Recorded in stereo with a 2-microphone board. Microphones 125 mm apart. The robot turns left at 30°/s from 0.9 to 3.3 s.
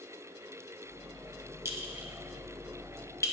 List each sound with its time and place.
1.6 s a clink: 20° right (ahead or behind), 0.7 m; by 3.3 s 25° left (ahead or behind), 0.7 m